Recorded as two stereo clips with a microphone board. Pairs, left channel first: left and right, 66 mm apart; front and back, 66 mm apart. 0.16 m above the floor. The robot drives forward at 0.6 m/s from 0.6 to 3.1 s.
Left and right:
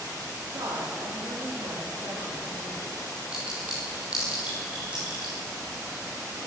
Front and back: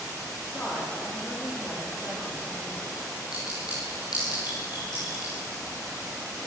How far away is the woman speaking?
About 9 m.